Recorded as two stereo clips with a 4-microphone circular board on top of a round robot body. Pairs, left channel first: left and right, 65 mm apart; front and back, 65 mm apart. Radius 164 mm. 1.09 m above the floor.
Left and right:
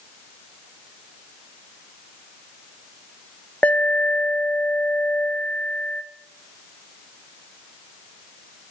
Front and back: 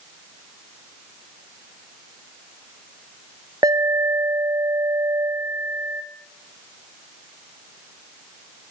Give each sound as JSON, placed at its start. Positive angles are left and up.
{"t": 3.6, "sound": "an alarm", "azimuth_deg": 155, "distance_m": 1.9}